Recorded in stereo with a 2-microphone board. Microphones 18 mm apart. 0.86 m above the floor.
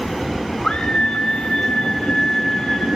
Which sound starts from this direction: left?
A scream, at 0.6 s.